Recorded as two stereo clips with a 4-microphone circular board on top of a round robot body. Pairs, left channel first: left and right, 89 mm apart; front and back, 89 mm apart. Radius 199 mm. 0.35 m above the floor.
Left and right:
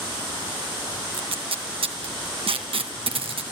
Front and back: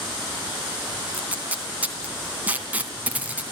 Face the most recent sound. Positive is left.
turn(degrees=-105)